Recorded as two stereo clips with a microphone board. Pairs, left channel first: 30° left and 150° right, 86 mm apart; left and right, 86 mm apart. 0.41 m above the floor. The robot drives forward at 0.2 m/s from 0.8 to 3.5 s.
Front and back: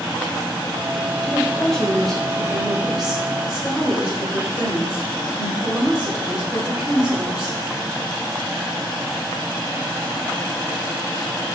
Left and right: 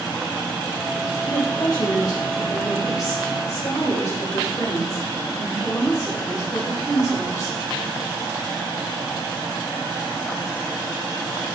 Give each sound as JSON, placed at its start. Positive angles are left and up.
{"t": 1.2, "sound": "a woman speaking", "azimuth_deg": 105, "distance_m": 1.1}